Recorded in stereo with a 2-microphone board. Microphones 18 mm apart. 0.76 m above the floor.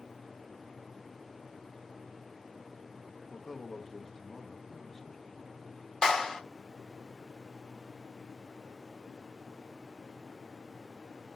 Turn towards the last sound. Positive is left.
turn(degrees=50)  # may be behind; listen again after turning